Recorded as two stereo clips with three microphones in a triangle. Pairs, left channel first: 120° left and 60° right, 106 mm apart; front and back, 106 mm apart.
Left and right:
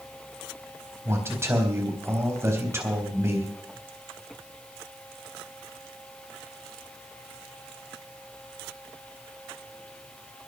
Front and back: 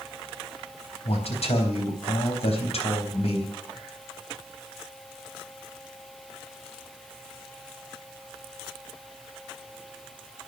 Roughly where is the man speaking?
Ahead.